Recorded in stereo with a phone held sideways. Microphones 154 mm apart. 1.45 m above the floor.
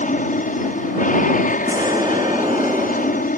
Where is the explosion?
25° right (ahead or behind).